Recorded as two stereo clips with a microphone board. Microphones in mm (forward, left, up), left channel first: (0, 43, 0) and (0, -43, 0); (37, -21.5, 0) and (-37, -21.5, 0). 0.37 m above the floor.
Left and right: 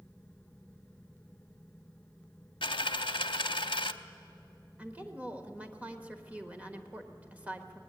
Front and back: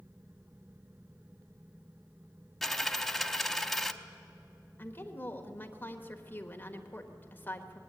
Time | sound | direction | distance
2.6 | a dropped coin | 85° left | 0.6 m
4.8 | a woman speaking | 35° right | 1.4 m